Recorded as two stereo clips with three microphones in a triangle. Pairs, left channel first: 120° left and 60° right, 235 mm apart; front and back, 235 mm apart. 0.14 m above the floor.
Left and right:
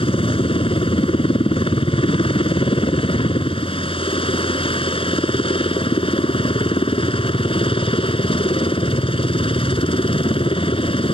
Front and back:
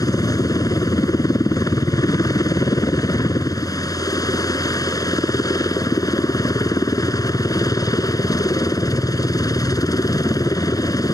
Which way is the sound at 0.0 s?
65° left.